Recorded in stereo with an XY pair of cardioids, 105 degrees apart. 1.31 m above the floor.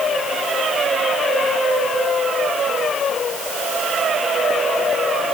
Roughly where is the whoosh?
I don't hear a whoosh.